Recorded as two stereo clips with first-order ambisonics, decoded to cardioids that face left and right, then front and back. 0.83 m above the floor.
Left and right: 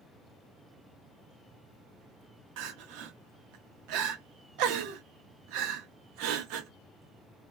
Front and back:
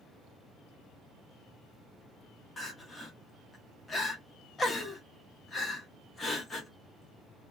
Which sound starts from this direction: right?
Crying, at 2.6 s.